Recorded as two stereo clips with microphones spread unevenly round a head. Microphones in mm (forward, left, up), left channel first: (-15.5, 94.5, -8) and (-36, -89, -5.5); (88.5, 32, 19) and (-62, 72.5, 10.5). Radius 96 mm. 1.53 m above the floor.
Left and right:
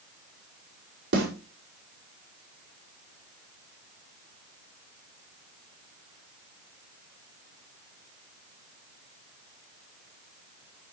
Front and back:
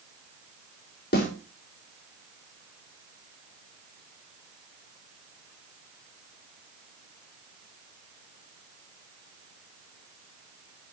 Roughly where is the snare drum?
Ahead right.